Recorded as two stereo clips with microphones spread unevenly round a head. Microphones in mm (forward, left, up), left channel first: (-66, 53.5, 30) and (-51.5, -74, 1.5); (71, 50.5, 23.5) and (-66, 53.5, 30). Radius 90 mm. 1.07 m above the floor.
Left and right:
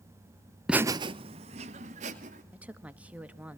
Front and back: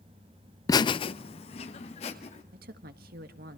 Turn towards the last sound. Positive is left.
turn(degrees=-160)